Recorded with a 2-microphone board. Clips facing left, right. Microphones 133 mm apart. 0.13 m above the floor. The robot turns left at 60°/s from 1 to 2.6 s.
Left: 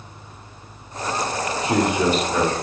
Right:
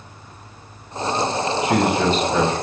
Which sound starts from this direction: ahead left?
A man speaking, at 1.6 s.